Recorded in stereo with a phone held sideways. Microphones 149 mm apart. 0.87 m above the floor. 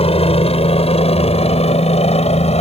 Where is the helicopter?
45° left (ahead or behind); by 2.6 s 50° left (ahead or behind).